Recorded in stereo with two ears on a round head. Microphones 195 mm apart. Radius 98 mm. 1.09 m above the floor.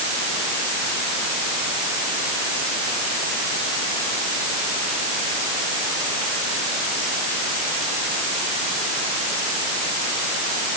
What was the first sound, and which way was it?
Only background noise.